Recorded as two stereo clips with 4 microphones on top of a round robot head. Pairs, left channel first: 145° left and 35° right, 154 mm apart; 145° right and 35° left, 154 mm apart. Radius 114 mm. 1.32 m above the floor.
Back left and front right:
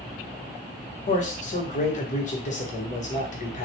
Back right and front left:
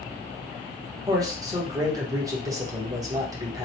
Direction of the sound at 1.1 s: 105° left.